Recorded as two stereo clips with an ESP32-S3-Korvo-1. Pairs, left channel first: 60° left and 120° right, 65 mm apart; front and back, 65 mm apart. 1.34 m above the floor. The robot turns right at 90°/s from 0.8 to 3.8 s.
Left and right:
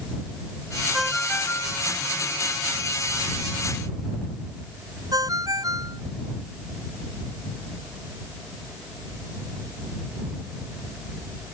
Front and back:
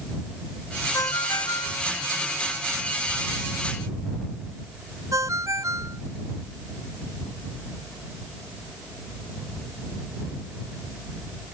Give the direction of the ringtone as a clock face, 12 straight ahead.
1 o'clock.